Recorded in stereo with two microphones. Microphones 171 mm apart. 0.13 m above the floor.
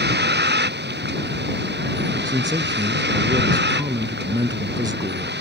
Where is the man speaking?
25° right (ahead or behind).